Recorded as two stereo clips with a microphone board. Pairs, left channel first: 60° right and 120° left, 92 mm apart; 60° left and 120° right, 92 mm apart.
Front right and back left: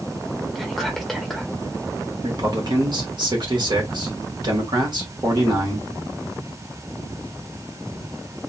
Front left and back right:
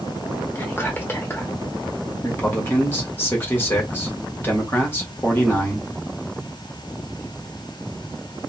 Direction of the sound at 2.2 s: 120° left.